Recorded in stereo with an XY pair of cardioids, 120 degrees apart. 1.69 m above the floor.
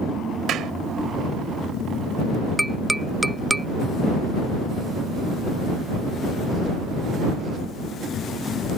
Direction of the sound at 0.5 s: 60° right.